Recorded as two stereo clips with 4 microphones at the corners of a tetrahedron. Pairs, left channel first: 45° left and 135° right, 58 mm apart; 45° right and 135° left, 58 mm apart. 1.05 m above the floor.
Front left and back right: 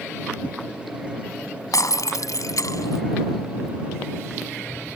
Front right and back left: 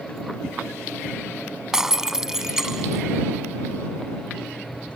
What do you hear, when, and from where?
1.7 s breaking glass: 55° left